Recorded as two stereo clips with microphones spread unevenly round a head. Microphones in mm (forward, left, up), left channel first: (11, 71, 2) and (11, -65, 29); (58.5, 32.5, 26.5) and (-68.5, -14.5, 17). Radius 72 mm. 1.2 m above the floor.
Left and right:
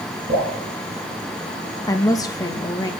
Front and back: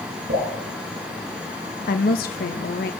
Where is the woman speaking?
30° left, 1.8 m.